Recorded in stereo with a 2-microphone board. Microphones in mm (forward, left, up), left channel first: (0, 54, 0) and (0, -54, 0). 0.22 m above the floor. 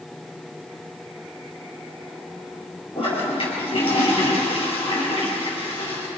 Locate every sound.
3.0 s a toilet flushing: 55° left (ahead or behind), 5.5 m